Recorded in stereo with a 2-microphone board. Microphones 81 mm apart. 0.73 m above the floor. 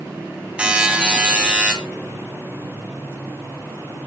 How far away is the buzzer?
About 2.5 m.